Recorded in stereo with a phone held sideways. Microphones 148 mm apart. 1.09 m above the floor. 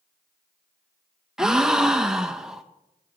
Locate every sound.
1.4 s a gasp: 5° right (ahead or behind), 0.7 m